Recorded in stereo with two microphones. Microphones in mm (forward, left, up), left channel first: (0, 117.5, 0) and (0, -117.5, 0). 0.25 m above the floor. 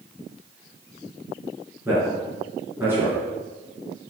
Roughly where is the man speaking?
Centre.